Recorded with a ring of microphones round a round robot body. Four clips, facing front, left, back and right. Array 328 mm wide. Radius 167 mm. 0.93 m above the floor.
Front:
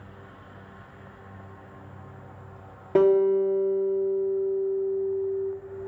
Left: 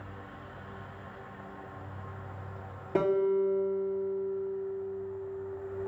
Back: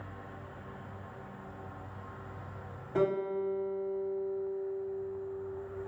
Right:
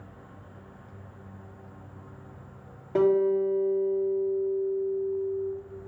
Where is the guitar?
5° left, 1.0 m.